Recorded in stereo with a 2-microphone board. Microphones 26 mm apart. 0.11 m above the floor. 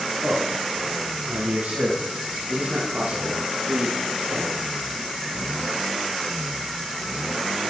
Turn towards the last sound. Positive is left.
turn(degrees=-60)  # may be behind; listen again after turning